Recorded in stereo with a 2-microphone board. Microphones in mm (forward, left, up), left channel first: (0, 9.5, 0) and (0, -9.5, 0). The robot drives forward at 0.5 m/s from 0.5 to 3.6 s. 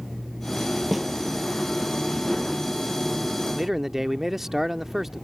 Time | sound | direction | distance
0.9 | a snare drum | centre (ahead or behind) | ?
3.5 | a man speaking | 20° right (ahead or behind) | ?